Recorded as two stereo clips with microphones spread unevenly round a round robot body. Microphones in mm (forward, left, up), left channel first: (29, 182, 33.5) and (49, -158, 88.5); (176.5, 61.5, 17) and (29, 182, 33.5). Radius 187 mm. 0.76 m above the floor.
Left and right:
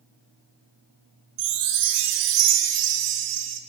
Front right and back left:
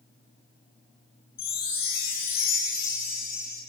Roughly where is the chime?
Right.